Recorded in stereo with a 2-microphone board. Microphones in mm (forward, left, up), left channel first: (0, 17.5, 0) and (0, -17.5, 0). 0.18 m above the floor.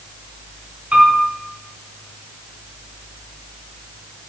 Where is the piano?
40° right (ahead or behind), 1.3 m.